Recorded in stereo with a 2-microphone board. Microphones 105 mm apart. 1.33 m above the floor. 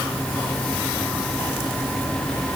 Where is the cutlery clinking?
No cutlery clinking in this recording.